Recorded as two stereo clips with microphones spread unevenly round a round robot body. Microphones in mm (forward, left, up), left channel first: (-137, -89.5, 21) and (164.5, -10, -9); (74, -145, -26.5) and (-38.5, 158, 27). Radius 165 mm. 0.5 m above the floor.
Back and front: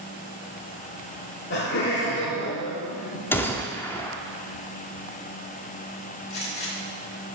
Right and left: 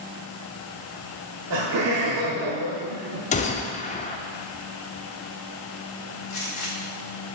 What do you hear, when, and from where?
1.5 s laughter: 145° left, 1.0 m
3.3 s a gunshot: 80° right, 0.7 m
6.3 s a gunshot: 125° right, 2.0 m